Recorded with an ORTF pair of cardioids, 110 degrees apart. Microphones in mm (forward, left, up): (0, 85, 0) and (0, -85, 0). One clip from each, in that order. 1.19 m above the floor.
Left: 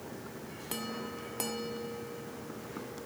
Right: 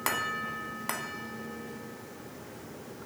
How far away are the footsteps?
No footsteps in this recording.